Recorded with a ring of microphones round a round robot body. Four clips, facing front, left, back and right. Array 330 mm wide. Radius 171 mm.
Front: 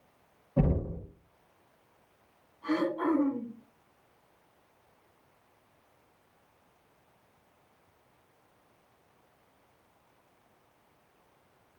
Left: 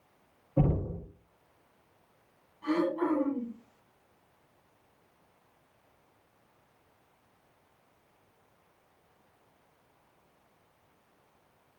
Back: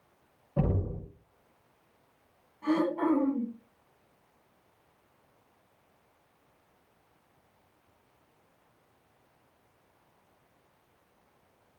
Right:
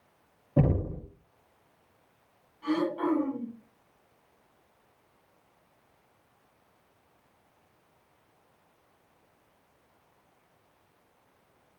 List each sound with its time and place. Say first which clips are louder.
0.6 s knocking: right 2 dB, front 2 dB; 95° right, 7 m
2.6 s throat clearing: even, back 2 dB; 170° right, 10 m